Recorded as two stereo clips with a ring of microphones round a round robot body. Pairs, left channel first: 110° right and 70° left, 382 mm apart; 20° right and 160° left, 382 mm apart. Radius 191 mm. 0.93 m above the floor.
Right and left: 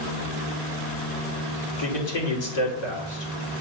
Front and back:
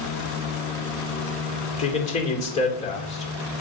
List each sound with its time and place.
1.8 s a man speaking: 95° right, 2.5 m